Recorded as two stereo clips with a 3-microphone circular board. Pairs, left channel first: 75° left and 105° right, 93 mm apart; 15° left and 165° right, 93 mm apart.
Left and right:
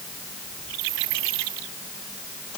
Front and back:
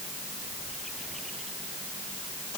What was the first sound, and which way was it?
Only background noise.